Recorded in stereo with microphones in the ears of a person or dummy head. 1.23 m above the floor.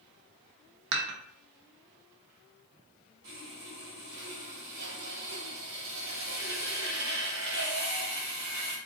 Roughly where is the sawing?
Right.